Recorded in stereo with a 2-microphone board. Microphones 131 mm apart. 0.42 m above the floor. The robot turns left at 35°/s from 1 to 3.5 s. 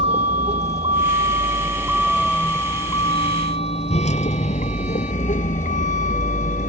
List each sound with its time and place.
0.0 s a vehicle: 50° right (ahead or behind); by 6.7 s 80° left